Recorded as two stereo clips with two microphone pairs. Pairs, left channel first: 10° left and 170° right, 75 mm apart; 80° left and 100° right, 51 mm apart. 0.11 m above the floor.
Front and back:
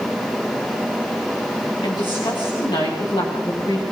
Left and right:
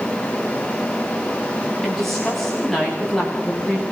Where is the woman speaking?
5° right, 10 m; by 3.8 s straight ahead, 9 m.